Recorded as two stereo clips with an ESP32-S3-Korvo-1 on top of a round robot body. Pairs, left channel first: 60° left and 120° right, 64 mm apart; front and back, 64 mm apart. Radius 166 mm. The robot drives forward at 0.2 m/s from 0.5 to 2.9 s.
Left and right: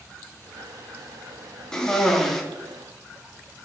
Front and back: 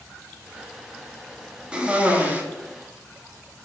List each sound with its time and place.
1.7 s a cough: 125° left, 0.8 m; by 2.4 s 145° left, 0.8 m